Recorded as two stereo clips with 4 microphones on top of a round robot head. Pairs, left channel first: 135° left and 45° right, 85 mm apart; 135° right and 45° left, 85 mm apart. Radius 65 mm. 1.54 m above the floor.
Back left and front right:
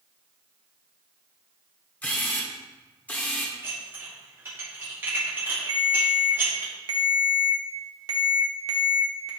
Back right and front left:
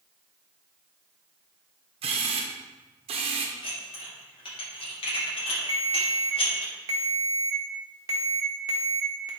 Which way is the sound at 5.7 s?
5° right.